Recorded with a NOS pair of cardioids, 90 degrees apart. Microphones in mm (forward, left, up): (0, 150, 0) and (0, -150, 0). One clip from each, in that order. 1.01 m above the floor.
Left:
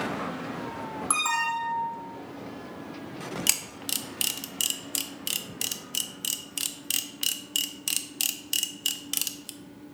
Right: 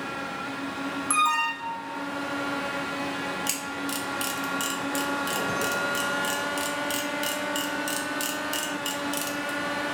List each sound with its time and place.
1.1 s an alarm: 10° left, 1.4 m
3.5 s a camera shutter: 35° left, 0.8 m